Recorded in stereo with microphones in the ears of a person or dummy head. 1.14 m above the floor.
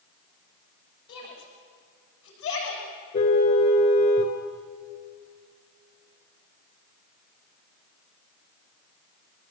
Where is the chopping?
No chopping in this recording.